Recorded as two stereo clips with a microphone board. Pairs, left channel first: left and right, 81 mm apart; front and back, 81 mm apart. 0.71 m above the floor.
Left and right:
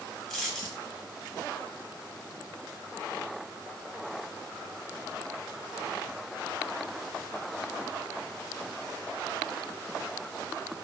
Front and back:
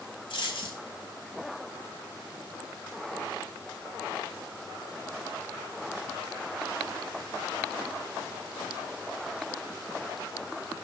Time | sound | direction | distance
0.3 | a dropped coin | straight ahead | 1.2 m